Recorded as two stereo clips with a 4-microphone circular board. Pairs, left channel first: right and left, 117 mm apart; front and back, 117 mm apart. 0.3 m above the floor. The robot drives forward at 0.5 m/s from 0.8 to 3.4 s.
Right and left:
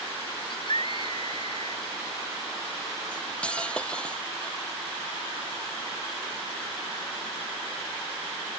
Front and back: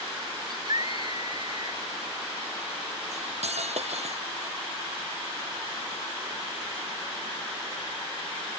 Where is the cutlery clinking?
170° right.